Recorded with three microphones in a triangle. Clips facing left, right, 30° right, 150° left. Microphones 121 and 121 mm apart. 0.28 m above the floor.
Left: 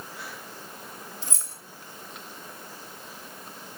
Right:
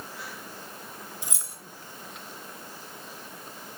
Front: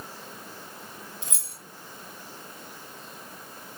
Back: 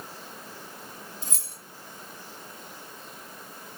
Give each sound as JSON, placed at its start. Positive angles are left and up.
{"t": 1.2, "sound": "keys jangling", "azimuth_deg": -165, "distance_m": 2.0}